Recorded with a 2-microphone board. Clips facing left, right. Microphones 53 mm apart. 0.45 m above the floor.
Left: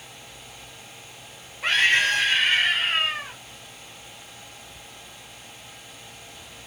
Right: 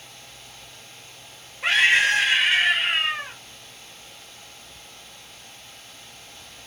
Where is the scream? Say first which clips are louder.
Right 2 dB; 5° right (ahead or behind), 1.6 m.